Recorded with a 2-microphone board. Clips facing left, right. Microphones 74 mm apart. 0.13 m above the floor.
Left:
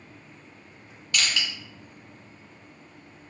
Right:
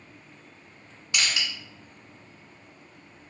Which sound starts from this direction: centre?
Crushing, at 1.1 s.